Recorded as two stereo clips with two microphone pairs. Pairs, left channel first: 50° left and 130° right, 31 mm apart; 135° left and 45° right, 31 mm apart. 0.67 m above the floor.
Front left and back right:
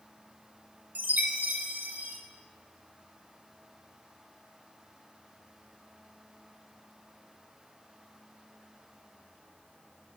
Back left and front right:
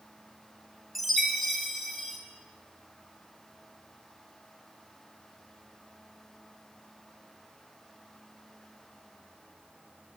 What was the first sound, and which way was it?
A chime, 135° right.